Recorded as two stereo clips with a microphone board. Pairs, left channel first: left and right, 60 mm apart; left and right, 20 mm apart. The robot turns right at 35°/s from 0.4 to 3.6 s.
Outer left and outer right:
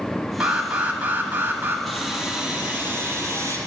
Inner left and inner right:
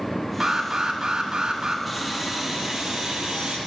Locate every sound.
0.4 s an alarm: 160° right, 1.4 m; by 1.8 s 110° right, 1.4 m
1.9 s sawing: 175° left, 2 m; by 3.6 s 125° right, 2 m